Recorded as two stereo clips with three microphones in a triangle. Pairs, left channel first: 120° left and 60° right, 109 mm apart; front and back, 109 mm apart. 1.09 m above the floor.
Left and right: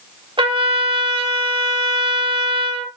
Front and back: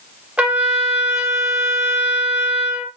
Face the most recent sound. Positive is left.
turn(degrees=-100)